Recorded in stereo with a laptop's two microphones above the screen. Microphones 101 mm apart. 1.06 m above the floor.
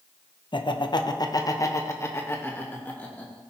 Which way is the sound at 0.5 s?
50° left (ahead or behind).